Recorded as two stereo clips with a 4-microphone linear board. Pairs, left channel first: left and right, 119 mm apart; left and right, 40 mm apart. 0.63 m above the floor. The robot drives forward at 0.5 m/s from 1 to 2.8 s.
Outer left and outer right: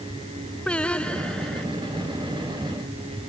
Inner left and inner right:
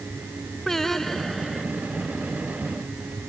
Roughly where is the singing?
Centre.